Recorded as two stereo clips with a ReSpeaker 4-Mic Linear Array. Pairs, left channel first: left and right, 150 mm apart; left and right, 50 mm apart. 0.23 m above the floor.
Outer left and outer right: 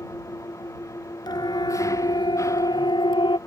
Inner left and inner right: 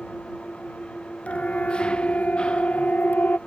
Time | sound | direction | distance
0.0 | an engine running | 20° left (ahead or behind) | ?
1.3 | a siren | 30° left (ahead or behind) | ?